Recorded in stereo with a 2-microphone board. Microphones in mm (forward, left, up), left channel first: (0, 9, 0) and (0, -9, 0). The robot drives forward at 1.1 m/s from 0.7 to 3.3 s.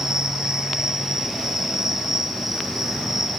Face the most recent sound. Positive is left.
turn(degrees=-20)  # may be behind; listen again after turning